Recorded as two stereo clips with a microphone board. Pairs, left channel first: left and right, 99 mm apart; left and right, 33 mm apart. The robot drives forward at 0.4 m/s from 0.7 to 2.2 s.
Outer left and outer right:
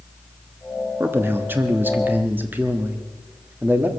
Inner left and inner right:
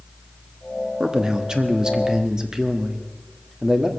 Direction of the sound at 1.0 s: 25° right (ahead or behind).